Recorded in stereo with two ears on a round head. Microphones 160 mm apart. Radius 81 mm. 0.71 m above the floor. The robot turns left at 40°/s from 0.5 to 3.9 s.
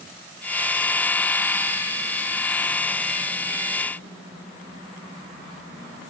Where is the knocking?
I don't hear knocking.